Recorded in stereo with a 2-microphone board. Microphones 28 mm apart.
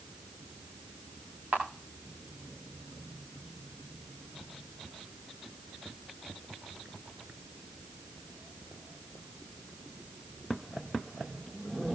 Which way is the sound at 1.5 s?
70° right (ahead or behind).